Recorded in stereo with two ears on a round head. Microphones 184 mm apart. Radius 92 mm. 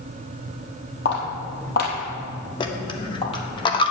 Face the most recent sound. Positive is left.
turn(degrees=25)  # may be behind; listen again after turning